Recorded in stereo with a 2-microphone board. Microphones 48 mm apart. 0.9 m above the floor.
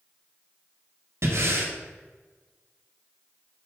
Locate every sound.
1.2 s breathing: 65° right (ahead or behind), 1.4 m